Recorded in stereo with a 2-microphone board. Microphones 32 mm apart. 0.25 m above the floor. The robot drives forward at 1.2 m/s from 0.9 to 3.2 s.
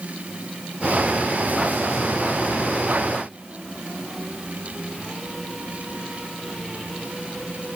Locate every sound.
Only background noise.